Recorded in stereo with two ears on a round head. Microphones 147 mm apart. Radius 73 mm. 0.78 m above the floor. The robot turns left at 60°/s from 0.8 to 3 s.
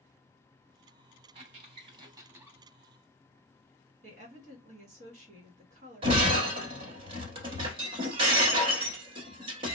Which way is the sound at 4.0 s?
45° right (ahead or behind).